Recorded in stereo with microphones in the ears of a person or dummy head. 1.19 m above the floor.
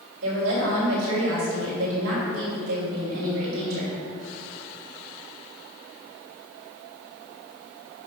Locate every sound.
0.2 s a woman speaking: 90° right, 3.5 m